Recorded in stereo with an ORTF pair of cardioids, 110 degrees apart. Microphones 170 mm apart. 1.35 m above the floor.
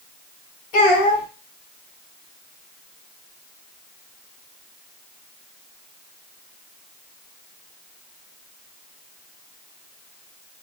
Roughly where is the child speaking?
Ahead left.